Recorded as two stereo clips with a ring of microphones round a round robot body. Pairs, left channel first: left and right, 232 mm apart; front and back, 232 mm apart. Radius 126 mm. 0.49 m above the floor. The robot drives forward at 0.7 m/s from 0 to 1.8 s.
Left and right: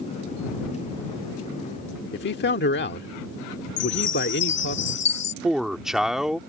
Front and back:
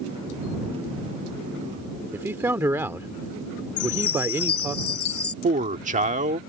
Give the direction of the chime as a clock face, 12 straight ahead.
10 o'clock.